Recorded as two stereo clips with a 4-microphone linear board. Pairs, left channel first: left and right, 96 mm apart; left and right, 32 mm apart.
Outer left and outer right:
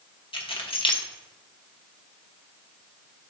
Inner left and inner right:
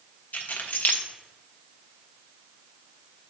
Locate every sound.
0.3 s keys jangling: 70° left (ahead or behind), 1.2 m